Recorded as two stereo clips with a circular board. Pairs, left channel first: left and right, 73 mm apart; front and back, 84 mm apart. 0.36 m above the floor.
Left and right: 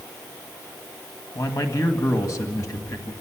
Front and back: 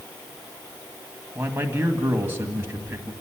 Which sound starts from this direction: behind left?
A man speaking, at 1.4 s.